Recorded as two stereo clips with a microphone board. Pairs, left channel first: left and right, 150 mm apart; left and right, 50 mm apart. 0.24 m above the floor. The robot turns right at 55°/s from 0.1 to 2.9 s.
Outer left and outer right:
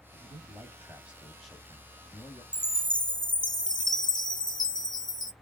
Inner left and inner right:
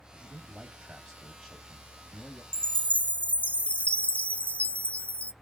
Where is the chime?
10° left (ahead or behind), 0.7 m; by 5.3 s 30° left (ahead or behind), 0.7 m.